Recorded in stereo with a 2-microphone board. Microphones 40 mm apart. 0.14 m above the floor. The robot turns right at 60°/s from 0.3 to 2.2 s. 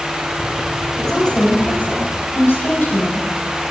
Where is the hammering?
I don't hear hammering.